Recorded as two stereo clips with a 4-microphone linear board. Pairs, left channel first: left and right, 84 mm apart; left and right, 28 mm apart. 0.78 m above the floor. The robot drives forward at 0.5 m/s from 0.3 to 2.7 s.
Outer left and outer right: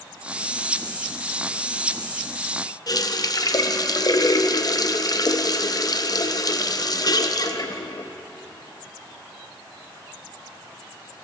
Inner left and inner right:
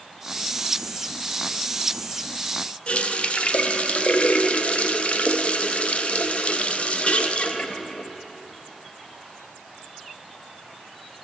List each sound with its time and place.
2.9 s a running tap: 50° left (ahead or behind), 0.5 m